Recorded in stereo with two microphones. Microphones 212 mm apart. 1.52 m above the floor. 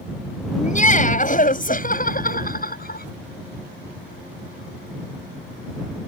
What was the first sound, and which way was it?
Laughter, 35° left (ahead or behind).